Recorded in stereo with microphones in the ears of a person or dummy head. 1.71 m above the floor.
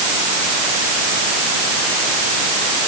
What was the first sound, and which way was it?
Only background noise.